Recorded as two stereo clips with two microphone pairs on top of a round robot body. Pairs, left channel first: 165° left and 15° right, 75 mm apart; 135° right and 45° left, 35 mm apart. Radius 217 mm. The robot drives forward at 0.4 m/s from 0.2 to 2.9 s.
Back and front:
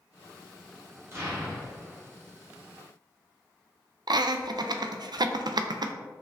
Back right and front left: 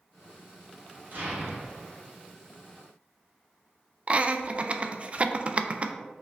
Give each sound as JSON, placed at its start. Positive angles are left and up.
{"t": 1.1, "sound": "an explosion", "azimuth_deg": 40, "distance_m": 1.7}
{"t": 4.1, "sound": "laughter", "azimuth_deg": 0, "distance_m": 0.5}